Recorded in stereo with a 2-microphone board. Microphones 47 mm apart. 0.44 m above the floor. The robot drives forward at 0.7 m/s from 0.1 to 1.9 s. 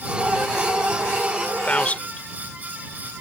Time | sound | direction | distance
1.7 | a man speaking | 30° left (ahead or behind) | ?